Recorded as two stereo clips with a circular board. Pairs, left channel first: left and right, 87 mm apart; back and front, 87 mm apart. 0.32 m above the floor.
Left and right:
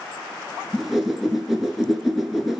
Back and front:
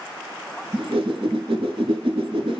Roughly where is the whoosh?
Ahead.